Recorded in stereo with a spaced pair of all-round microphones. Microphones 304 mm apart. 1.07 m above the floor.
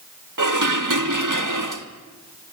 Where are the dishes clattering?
80° right, 1.4 m.